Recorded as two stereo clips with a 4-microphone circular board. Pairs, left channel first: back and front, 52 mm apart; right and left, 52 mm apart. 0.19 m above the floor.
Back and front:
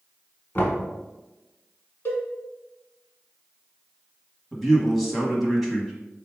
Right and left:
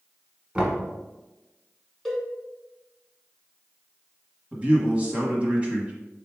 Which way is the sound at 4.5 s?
90° left.